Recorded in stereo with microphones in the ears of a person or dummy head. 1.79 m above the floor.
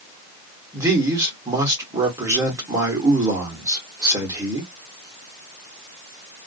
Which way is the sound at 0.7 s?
20° right (ahead or behind).